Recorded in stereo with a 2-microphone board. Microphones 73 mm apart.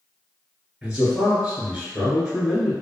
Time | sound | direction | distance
0.8 | a man speaking | 15° right (ahead or behind) | 1.5 m